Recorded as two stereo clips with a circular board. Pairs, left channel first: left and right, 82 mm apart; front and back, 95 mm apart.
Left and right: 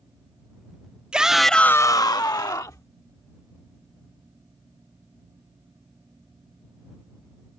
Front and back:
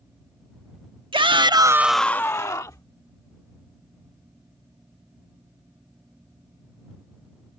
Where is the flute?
I don't hear a flute.